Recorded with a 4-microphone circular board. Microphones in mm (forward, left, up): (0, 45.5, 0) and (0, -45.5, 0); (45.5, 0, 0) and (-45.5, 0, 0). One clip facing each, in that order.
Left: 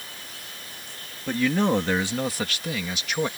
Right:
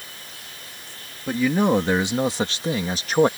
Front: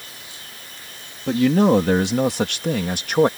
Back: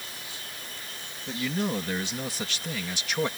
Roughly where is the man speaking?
Ahead.